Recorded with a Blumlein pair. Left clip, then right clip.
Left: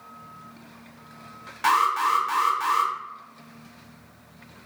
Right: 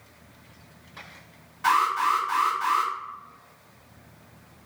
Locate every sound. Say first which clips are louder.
1.6 s an alarm: left 1 dB; 35° left, 1.0 m